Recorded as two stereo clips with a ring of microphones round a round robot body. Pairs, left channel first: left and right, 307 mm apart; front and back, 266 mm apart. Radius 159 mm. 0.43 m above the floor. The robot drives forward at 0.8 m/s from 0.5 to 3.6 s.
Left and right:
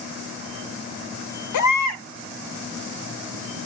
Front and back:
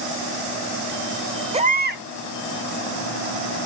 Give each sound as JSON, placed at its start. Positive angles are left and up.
{"t": 1.5, "sound": "a baby crying", "azimuth_deg": 110, "distance_m": 0.9}